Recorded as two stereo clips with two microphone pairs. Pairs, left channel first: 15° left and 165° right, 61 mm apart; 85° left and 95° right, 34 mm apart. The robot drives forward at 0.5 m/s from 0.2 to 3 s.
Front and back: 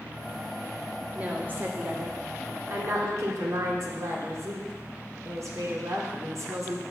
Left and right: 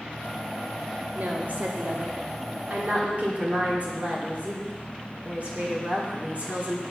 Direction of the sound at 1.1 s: 105° right.